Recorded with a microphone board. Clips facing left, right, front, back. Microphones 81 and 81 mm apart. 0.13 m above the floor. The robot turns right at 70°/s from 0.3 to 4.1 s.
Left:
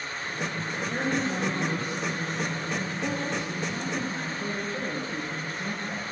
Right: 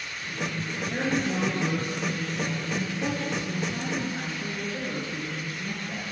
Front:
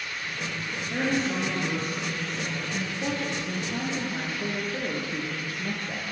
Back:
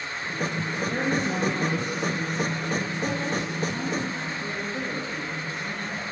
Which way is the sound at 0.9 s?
160° left.